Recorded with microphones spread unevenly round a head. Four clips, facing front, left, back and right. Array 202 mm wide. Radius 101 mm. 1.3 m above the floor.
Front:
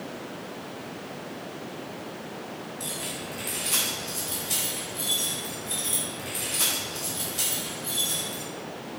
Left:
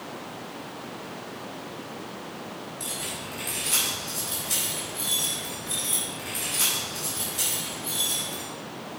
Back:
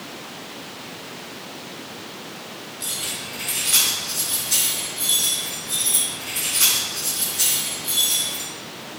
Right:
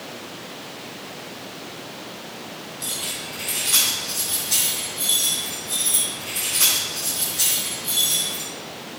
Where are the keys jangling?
35° left, 5 m; by 8.4 s 5° right, 5 m.